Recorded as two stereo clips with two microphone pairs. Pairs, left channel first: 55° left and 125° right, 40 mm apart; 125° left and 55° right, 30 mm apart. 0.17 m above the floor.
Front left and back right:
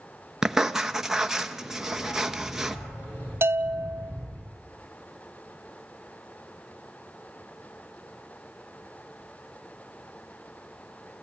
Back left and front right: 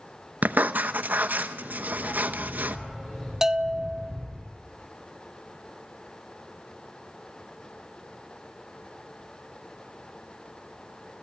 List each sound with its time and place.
0.4 s writing: 50° right, 0.9 m
1.9 s a dog barking: 50° left, 6 m
3.4 s a bell: 130° right, 0.7 m